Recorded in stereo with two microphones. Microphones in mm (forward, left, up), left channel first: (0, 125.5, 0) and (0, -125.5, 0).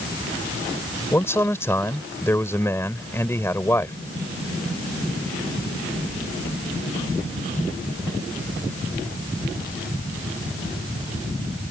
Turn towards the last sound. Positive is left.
turn(degrees=10)  # may be behind; listen again after turning